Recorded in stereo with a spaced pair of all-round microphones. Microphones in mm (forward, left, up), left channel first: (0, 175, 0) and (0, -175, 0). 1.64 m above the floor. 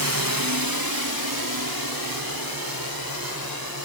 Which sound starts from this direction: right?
A drone, at 0.0 s.